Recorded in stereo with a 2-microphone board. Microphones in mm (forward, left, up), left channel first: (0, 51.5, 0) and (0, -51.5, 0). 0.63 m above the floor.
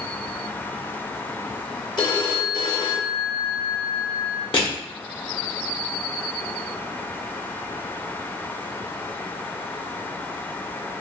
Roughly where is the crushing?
Left.